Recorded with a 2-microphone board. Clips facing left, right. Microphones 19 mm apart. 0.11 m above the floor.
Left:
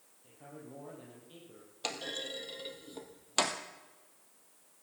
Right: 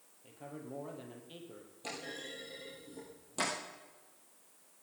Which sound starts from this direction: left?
A clunk, at 1.8 s.